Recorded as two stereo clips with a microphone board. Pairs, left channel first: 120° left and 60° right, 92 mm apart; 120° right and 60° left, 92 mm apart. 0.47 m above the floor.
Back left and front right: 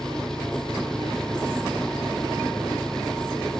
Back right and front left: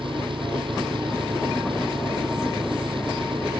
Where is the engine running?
35° left.